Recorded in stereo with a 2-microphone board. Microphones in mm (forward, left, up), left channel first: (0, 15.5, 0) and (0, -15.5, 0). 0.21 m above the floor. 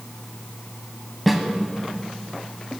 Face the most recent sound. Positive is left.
turn(degrees=0)  # may be behind; listen again after turning